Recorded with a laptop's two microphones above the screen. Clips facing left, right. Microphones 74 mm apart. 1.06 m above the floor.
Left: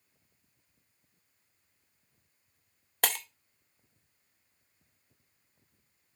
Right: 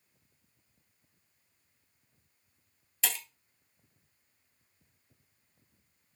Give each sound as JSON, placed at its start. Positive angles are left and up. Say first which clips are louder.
{"t": 3.0, "sound": "breaking glass", "louder": "left 6 dB", "side_deg": 55, "distance_m": 0.8}